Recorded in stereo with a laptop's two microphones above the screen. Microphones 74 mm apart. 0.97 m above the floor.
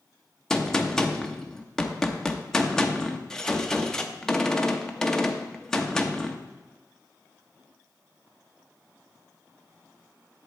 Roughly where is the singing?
I don't hear singing.